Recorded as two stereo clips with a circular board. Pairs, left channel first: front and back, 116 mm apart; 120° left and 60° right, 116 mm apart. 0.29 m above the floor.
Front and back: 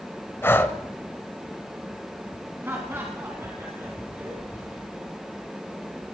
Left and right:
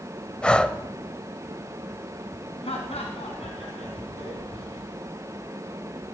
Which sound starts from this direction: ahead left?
Breathing, at 0.4 s.